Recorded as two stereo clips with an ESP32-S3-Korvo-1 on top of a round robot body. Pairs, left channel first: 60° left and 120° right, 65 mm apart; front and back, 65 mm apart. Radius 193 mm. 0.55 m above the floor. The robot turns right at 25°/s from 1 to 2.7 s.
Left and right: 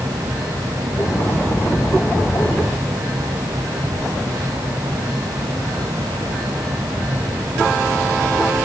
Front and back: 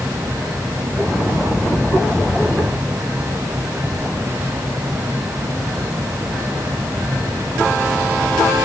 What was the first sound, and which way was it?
Only background noise.